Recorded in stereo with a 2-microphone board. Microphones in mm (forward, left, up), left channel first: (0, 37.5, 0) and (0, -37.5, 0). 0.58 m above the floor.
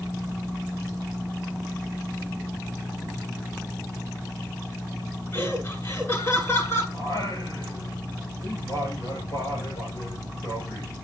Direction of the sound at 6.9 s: 55° left (ahead or behind).